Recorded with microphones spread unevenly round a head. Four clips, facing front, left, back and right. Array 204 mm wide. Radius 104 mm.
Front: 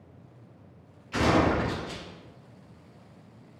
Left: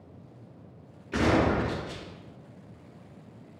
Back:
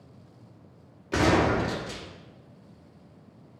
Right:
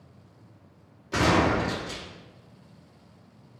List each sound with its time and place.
1.1 s a gunshot: straight behind, 2.5 m